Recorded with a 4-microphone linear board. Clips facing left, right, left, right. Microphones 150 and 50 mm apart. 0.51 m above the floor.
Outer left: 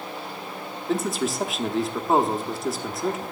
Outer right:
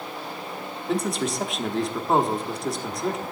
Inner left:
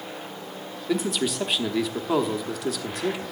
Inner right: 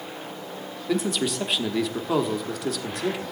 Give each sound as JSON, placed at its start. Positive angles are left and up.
{"t": 0.9, "sound": "a man speaking", "side_deg": 0, "distance_m": 1.0}